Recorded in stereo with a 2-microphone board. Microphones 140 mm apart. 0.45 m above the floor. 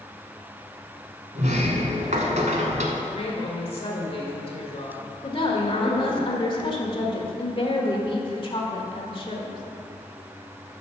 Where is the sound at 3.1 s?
50° left (ahead or behind), 1.8 m.